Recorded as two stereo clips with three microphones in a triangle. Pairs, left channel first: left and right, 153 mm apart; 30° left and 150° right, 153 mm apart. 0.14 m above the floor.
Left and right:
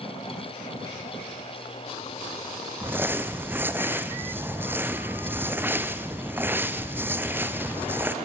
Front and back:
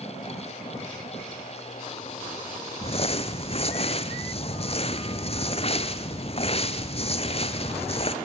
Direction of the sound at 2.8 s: 15° right.